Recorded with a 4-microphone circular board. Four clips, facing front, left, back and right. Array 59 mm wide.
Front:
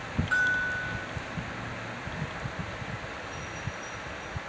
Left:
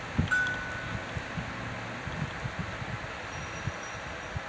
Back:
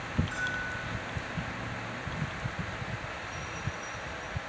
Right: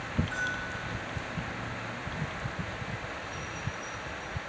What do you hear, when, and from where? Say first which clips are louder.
0.3 s a bell: left 4 dB, front 12 dB; 40° left, 5 m